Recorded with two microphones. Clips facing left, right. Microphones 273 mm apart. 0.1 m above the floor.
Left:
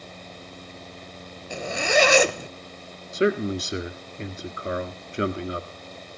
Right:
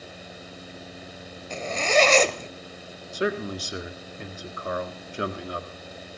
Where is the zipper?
10° left (ahead or behind), 0.8 m.